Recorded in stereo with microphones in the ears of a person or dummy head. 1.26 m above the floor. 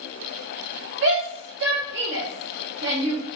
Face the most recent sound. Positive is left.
turn(degrees=-60)  # may be behind; listen again after turning